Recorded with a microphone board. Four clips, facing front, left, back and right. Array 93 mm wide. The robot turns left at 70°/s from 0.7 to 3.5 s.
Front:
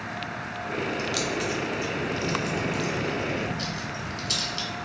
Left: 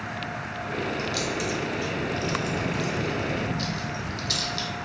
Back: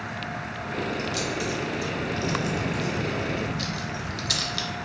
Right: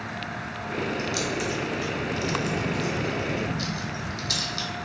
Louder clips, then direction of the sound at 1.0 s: Even, front 1 dB; straight ahead.